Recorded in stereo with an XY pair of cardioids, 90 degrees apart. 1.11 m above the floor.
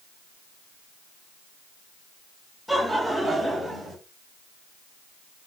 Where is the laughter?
Straight ahead, 1.3 m; by 4.0 s 30° right, 1.4 m.